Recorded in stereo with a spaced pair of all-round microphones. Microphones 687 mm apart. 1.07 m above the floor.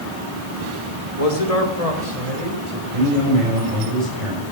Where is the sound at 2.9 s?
55° right (ahead or behind), 6.5 m.